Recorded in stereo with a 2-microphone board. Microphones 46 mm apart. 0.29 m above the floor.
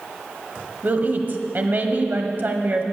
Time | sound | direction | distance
0.8 | a woman speaking | 45° right (ahead or behind) | 1.3 m